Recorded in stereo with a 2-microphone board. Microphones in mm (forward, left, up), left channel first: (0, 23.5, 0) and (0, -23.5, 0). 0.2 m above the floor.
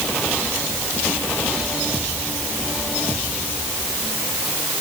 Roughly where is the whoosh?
No whoosh in this recording.